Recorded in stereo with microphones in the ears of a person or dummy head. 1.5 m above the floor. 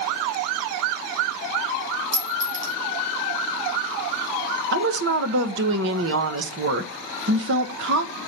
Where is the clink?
60° right (ahead or behind), 4.5 m.